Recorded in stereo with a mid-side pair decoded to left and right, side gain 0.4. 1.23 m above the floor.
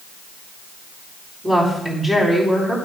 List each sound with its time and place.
1.4 s a woman speaking: 15° right, 4 m